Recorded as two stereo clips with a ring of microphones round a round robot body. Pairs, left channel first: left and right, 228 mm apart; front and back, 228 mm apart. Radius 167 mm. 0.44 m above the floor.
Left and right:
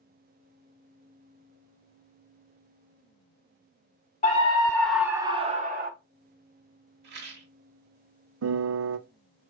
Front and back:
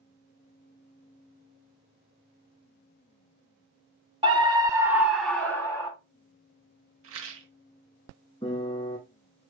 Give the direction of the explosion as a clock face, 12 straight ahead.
I don't hear an explosion.